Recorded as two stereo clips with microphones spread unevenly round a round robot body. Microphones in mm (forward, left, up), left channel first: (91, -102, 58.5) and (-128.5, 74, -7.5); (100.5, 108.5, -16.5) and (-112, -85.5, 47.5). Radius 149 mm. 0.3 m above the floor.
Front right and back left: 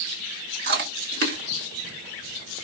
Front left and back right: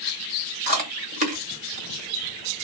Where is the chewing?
150° left, 1.7 m.